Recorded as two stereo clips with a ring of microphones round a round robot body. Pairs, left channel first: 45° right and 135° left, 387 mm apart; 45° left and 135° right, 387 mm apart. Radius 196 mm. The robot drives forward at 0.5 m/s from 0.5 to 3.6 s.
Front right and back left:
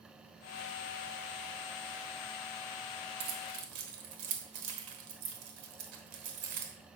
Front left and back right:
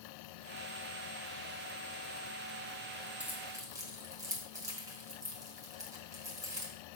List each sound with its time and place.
3.2 s keys jangling: 140° left, 1.2 m; by 6.7 s 145° left, 1.4 m